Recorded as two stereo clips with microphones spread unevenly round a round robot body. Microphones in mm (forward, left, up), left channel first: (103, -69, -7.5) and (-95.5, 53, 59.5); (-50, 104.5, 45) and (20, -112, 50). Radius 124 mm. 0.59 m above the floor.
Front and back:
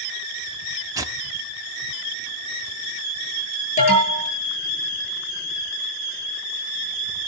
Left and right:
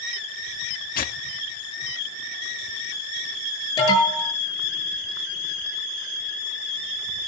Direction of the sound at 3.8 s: 30° left.